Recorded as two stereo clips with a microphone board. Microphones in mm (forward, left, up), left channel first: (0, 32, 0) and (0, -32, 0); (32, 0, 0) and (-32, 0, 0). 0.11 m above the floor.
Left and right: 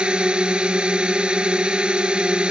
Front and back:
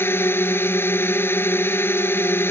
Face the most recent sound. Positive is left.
turn(degrees=-20)